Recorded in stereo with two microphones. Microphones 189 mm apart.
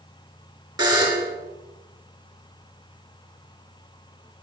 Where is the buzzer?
20° right (ahead or behind), 2.5 m.